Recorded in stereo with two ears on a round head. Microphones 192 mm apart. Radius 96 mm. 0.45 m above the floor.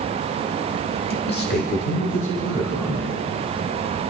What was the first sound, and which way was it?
A man speaking, 50° left (ahead or behind).